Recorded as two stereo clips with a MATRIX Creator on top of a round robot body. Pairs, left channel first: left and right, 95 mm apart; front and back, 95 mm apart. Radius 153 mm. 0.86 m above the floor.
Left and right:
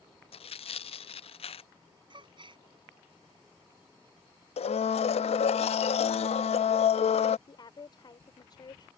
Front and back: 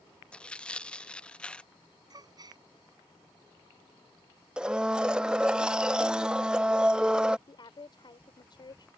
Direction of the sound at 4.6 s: 100° left.